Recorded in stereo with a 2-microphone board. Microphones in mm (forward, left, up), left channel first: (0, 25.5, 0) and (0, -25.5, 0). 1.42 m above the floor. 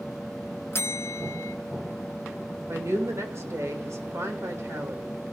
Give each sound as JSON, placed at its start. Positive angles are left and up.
{"t": 0.7, "sound": "a bell", "side_deg": 50, "distance_m": 0.5}
{"t": 2.7, "sound": "a woman speaking", "side_deg": -60, "distance_m": 2.5}